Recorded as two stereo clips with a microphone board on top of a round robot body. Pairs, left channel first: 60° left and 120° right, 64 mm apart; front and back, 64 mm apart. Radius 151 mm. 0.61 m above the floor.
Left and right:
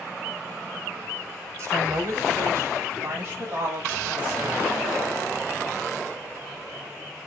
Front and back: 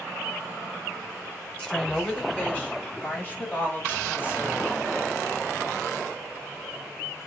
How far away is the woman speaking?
About 6 m.